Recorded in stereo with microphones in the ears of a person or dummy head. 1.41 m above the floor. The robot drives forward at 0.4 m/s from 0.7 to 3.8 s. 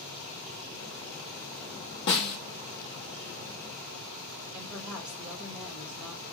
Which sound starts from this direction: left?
A snare drum, at 2.1 s.